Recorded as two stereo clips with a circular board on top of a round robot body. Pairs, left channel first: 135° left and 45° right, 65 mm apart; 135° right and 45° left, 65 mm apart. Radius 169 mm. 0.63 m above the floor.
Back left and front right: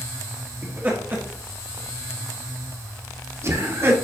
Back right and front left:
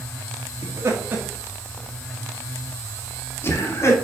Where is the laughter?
15° left, 2 m; by 3.9 s 95° right, 3 m.